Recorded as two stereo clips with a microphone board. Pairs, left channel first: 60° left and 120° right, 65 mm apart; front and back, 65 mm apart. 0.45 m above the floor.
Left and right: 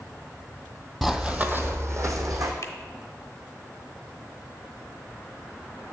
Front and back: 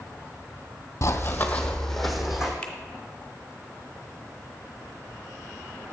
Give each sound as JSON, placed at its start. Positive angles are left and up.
{"t": 1.0, "sound": "running footsteps", "azimuth_deg": -35, "distance_m": 0.7}
{"t": 2.6, "sound": "a finger snap", "azimuth_deg": 70, "distance_m": 0.8}